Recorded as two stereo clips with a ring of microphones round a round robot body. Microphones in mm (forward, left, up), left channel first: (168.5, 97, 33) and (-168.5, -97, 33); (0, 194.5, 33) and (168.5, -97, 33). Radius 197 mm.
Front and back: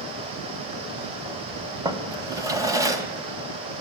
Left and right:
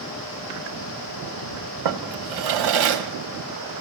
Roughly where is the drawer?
Right.